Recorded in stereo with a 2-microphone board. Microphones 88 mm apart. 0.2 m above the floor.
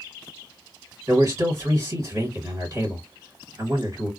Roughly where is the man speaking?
Right.